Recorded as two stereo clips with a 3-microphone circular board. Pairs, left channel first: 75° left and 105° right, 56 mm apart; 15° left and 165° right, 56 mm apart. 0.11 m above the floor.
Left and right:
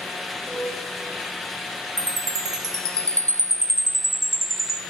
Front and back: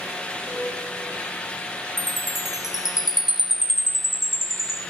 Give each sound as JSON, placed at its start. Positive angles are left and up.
{"t": 0.5, "sound": "a piano", "azimuth_deg": -30, "distance_m": 4.0}
{"t": 2.0, "sound": "a chime", "azimuth_deg": -80, "distance_m": 0.5}